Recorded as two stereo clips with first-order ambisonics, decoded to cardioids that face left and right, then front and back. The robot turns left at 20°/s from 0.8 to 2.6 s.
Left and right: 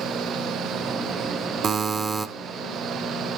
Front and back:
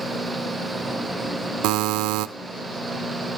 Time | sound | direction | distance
1.6 | a buzzer | 155° right | 0.6 m